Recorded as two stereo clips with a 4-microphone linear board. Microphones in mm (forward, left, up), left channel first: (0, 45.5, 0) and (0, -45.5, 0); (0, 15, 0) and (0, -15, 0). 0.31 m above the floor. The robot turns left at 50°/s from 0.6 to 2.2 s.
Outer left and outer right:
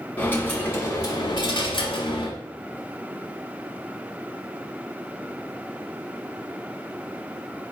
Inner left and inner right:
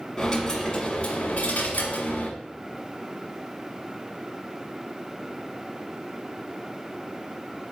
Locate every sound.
0.2 s a dropped coin: 155° left, 0.9 m; by 2.3 s 75° left, 0.9 m